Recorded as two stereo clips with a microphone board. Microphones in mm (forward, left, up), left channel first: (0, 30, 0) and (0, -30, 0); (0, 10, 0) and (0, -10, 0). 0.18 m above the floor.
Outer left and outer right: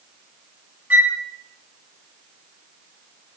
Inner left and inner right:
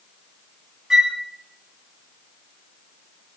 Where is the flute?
20° right (ahead or behind), 1.2 m.